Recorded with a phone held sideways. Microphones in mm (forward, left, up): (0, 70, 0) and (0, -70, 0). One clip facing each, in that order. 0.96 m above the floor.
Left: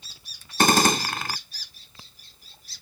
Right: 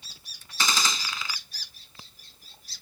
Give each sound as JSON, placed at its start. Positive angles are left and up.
{"t": 0.6, "sound": "a gunshot", "side_deg": 60}